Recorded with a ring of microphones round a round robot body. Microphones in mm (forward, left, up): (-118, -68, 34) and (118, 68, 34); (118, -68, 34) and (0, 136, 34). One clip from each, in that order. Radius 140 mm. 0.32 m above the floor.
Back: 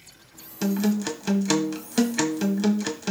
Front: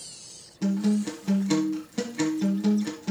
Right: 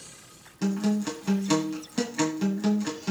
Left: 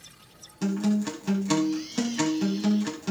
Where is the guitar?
150° right, 1.3 m.